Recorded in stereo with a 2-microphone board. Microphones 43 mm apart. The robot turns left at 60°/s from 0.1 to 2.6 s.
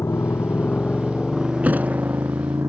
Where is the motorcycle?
75° left (ahead or behind); by 2.7 s 85° right.